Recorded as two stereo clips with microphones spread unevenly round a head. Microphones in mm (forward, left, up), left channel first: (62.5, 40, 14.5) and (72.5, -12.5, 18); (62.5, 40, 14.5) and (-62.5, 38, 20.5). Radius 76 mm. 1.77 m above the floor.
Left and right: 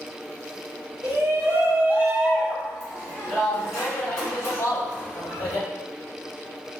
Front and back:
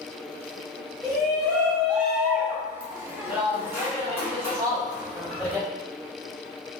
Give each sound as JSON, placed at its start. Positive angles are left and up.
{"t": 1.0, "sound": "a shout", "azimuth_deg": -95, "distance_m": 1.1}